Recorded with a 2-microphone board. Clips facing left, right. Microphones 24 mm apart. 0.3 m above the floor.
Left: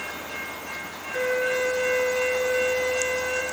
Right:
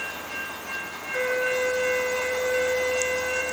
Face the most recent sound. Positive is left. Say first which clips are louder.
# even
turn(degrees=0)  # may be behind; listen again after turning